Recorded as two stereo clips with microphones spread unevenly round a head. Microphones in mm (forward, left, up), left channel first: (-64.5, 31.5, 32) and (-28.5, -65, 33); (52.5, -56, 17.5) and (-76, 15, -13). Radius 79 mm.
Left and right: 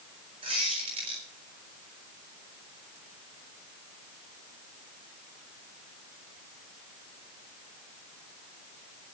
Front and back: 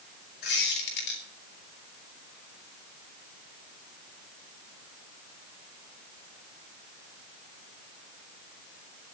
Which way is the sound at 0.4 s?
15° right.